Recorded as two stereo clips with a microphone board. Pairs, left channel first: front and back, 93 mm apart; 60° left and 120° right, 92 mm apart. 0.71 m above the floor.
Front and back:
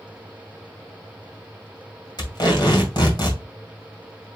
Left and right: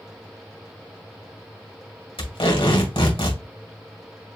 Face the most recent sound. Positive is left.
turn(degrees=40)